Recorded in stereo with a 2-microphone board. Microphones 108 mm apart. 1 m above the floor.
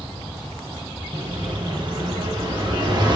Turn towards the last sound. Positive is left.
turn(degrees=-45)  # may be behind; listen again after turning